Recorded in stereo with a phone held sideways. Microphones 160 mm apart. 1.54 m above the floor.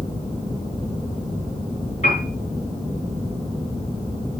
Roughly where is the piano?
Left.